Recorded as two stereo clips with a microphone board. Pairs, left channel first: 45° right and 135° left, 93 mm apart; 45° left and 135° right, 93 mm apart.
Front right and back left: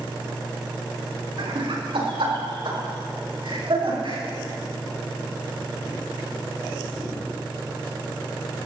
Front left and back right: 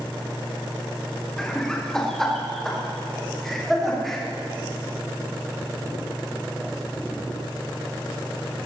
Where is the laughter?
130° left, 4 m; by 4.2 s 135° left, 7 m.